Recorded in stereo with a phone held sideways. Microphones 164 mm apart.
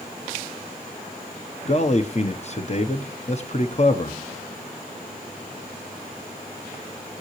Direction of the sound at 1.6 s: 45° left (ahead or behind).